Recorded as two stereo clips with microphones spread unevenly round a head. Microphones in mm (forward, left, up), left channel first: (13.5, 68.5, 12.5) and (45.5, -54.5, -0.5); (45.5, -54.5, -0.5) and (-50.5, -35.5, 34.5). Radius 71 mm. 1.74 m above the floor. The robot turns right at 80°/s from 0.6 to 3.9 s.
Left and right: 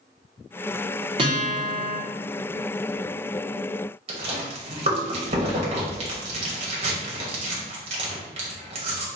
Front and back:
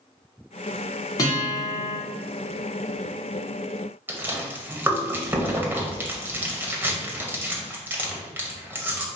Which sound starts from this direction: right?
A guitar, at 1.2 s.